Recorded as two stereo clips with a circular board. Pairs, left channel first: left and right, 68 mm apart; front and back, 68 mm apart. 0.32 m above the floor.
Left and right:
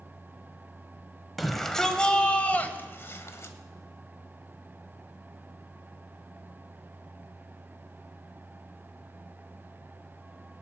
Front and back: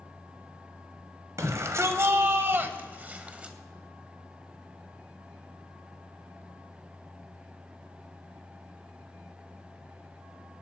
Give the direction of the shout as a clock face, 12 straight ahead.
6 o'clock.